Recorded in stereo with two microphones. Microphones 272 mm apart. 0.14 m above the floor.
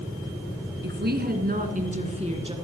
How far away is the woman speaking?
About 1.6 m.